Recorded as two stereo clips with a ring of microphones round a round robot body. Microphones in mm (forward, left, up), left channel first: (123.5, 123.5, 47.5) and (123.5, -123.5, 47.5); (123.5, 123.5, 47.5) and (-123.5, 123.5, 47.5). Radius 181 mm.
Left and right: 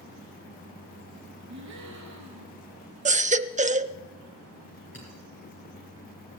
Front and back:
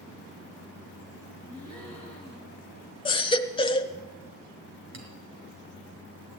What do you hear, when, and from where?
1.5 s a gasp: 110° right, 3.5 m
3.0 s a baby crying: 55° right, 0.6 m
4.9 s a clink: 155° left, 4.5 m